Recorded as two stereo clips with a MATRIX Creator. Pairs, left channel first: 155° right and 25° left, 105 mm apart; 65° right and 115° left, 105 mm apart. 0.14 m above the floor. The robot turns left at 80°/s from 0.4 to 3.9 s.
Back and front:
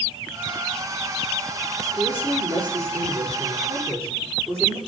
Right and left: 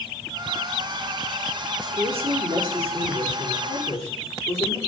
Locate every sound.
1.8 s a woman speaking: 125° left, 7.5 m; by 4.8 s 40° right, 7.5 m